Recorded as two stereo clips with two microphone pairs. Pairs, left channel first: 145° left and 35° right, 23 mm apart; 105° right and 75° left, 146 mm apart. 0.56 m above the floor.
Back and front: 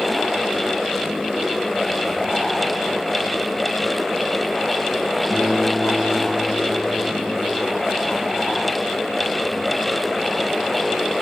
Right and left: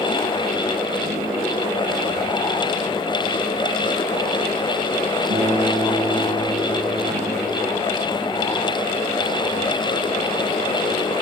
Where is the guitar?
50° left, 5 m.